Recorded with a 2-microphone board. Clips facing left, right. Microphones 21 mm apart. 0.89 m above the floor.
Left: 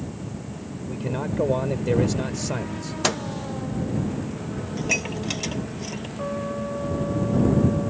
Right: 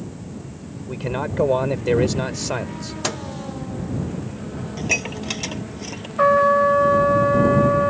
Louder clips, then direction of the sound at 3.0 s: Left 3 dB; 10° left (ahead or behind).